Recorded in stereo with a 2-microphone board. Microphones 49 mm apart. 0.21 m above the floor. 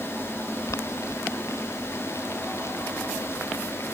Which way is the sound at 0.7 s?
85° left.